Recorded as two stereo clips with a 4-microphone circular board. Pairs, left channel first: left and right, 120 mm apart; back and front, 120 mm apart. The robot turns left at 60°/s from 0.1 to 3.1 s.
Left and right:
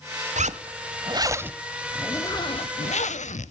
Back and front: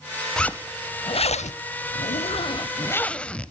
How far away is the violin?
I don't hear a violin.